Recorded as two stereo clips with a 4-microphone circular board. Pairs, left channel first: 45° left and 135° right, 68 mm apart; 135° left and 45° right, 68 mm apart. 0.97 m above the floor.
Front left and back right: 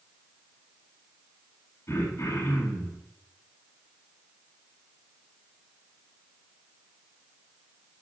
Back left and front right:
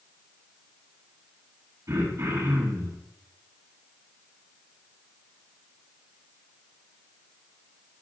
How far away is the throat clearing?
About 7.5 m.